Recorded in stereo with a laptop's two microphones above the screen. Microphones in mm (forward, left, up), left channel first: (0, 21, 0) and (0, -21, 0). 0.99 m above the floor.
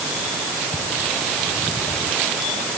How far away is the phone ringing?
I don't hear a phone ringing.